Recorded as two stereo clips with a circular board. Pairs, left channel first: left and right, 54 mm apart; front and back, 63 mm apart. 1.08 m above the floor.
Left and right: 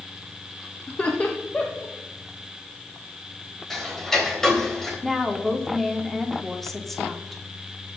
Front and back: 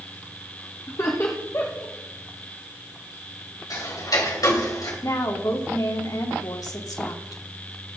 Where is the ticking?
5° left, 3 m.